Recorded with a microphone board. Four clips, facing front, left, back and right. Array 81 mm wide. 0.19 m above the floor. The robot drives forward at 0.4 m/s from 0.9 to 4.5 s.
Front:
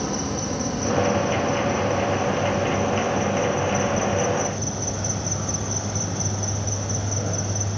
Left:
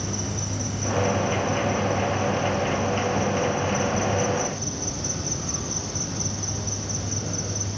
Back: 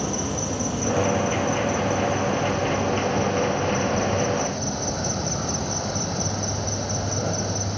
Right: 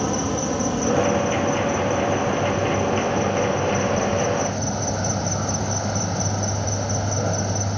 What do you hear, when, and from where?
0.0 s an insect: 100° right, 3.5 m; by 7.8 s 120° right, 4 m